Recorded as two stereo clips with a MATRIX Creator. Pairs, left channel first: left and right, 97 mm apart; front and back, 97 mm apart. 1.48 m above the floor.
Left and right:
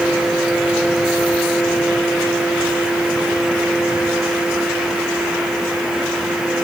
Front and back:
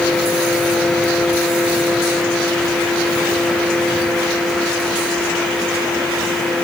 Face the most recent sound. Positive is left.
No sound to turn to.